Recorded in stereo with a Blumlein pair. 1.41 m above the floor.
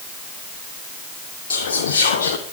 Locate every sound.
1.5 s whispering: 60° left, 0.6 m